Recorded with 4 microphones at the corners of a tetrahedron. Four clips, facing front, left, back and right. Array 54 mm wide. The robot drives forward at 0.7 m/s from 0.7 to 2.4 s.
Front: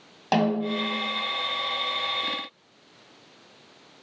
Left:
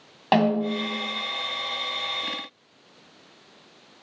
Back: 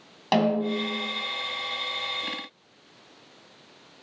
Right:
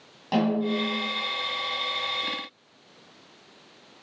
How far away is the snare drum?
About 1.9 m.